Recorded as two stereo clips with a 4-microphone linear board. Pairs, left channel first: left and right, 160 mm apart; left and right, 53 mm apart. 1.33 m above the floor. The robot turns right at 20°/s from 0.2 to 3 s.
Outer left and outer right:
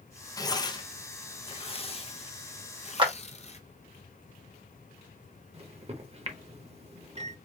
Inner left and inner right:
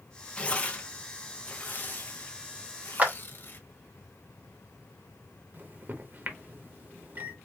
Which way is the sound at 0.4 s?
25° left (ahead or behind).